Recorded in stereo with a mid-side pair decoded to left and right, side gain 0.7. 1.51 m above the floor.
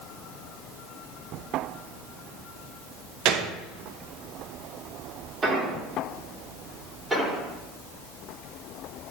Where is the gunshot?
55° right, 1.1 m.